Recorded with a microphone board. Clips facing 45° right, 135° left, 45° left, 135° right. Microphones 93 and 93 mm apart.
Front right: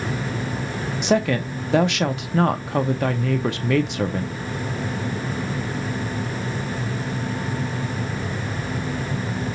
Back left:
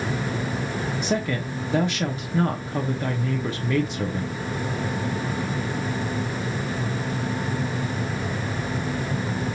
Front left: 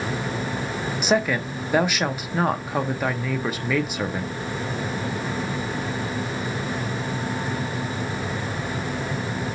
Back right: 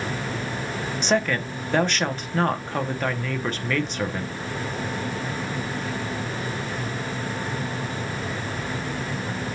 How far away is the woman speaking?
About 0.9 m.